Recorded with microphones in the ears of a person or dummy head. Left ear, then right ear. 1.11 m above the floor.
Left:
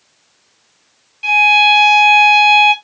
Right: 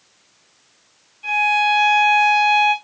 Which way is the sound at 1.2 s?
60° left (ahead or behind).